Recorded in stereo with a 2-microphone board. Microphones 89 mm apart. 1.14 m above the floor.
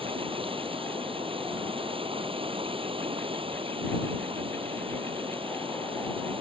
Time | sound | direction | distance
0.0 | running water | 85° right | ?